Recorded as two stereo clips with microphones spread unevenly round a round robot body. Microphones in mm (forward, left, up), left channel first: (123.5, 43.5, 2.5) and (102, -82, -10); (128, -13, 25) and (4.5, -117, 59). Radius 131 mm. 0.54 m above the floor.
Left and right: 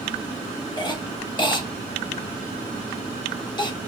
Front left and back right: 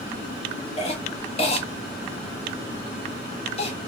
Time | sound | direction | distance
0.8 | a cough | 30° left | 1.6 m